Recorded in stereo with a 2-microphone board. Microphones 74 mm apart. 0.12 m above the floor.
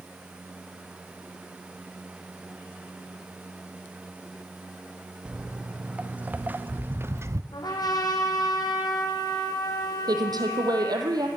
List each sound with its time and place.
5.2 s footsteps: 15° right (ahead or behind), 3 m; by 7.4 s 45° right (ahead or behind), 1.2 m
7.5 s a trumpet: 65° left (ahead or behind), 4 m
10.1 s a woman speaking: 60° right (ahead or behind), 4 m